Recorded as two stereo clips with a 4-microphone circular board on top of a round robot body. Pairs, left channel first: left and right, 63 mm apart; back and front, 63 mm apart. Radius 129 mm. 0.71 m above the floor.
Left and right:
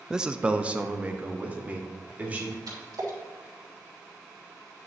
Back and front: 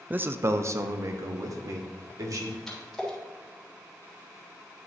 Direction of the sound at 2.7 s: 95° right.